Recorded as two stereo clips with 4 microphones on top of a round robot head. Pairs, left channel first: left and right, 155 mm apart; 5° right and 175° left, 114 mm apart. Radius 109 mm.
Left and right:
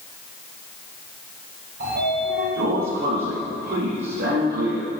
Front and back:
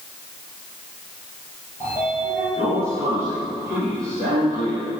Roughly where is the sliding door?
Right.